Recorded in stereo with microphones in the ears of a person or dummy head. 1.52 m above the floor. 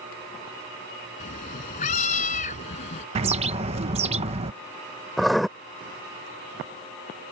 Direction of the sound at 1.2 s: 40° left (ahead or behind).